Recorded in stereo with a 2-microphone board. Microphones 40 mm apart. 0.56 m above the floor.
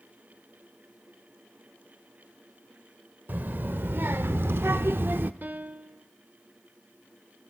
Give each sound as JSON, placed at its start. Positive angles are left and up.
{"t": 3.3, "sound": "a child speaking", "side_deg": -55, "distance_m": 1.1}
{"t": 5.4, "sound": "a piano", "side_deg": -55, "distance_m": 0.8}